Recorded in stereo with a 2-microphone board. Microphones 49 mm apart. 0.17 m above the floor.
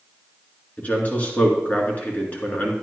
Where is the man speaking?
35° left (ahead or behind), 2 m.